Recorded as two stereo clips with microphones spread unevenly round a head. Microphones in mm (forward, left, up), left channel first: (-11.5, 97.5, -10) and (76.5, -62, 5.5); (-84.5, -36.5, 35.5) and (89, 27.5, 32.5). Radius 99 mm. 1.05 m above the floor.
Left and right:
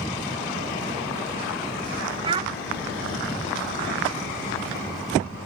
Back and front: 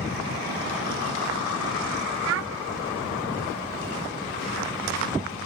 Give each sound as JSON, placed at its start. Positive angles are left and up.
{"t": 2.2, "sound": "a child speaking", "azimuth_deg": 5, "distance_m": 0.6}